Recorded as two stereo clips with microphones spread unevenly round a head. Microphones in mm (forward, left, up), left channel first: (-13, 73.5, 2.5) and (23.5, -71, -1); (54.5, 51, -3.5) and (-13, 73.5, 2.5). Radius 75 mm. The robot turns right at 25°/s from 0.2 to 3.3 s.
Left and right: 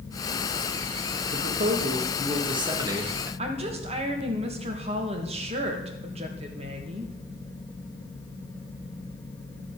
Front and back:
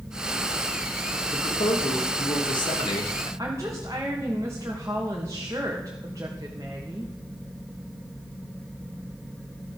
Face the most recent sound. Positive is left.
turn(degrees=-130)